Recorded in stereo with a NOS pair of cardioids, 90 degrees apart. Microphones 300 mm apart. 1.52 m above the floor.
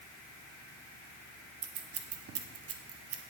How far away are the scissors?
About 1.1 m.